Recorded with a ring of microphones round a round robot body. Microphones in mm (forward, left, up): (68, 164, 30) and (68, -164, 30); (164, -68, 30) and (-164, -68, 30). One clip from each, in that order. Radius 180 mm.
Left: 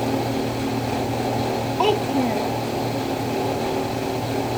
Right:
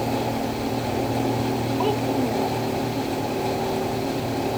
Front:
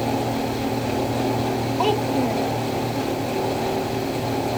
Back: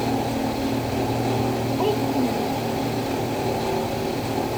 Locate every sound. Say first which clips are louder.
1.8 s a child speaking: left 5 dB, front 2 dB; 60° left